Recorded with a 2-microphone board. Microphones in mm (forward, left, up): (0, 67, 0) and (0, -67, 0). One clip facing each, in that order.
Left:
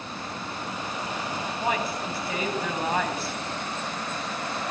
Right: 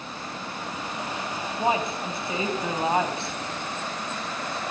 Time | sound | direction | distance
1.6 | a woman speaking | 25° right (ahead or behind) | 1.6 m